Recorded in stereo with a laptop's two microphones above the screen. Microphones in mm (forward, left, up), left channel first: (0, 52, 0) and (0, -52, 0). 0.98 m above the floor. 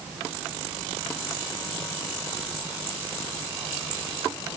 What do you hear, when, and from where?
Only background noise.